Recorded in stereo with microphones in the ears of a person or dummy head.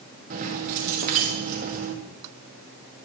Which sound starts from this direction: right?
Keys jangling, at 0.3 s.